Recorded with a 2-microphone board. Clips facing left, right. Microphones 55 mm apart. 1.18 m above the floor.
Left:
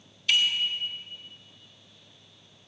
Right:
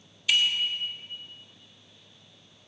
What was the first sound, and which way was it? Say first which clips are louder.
A bicycle bell: even; 5° right (ahead or behind).